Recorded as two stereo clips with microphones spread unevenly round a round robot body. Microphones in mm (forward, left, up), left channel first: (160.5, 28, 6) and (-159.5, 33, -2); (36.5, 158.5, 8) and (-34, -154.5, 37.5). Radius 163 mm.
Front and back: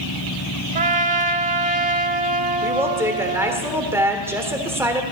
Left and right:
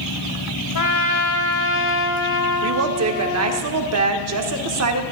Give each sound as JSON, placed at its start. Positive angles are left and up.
{"t": 0.8, "sound": "a trumpet", "azimuth_deg": 110, "distance_m": 0.8}
{"t": 2.6, "sound": "a woman speaking", "azimuth_deg": -105, "distance_m": 1.4}